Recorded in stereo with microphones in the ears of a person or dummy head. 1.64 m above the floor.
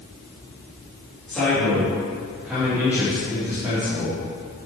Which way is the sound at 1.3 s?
5° left (ahead or behind).